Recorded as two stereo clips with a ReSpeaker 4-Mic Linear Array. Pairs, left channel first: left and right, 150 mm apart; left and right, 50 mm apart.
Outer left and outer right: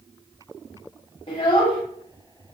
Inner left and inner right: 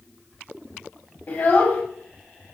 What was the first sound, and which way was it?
A child speaking, 35° left (ahead or behind).